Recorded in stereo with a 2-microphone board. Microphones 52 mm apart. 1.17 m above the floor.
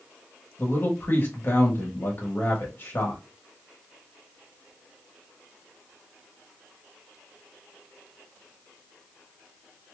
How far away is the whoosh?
No whoosh in this recording.